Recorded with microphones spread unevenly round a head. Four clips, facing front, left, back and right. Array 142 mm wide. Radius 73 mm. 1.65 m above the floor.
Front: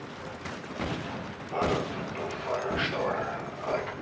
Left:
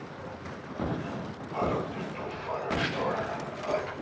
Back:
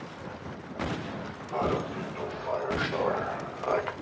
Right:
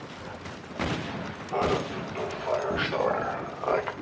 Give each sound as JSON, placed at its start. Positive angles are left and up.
{"t": 1.5, "sound": "laughter", "azimuth_deg": -100, "distance_m": 2.0}